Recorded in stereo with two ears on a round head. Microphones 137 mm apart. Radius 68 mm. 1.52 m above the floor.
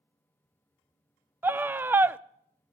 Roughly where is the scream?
Centre.